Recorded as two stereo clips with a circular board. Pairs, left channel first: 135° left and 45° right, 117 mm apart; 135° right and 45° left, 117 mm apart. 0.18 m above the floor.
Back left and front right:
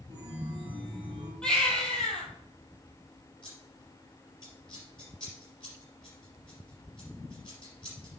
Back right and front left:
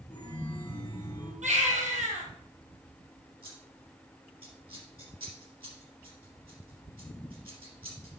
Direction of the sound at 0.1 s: 70° right.